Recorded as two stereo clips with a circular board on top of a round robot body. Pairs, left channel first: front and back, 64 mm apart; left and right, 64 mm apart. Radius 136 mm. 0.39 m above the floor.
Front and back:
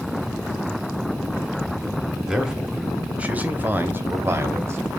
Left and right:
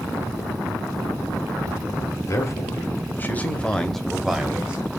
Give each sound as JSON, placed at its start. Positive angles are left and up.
{"t": 2.2, "sound": "a man speaking", "azimuth_deg": 100, "distance_m": 1.4}